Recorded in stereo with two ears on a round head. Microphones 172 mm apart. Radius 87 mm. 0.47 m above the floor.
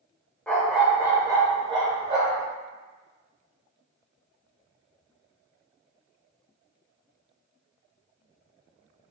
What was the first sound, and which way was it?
A dog barking, 5° left (ahead or behind).